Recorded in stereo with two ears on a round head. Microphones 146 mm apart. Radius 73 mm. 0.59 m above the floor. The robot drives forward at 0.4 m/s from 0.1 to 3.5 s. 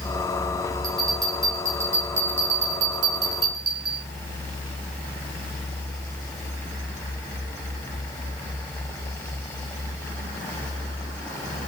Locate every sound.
0.8 s a bell: 20° right (ahead or behind), 8 m; by 4.0 s 25° right (ahead or behind), 7 m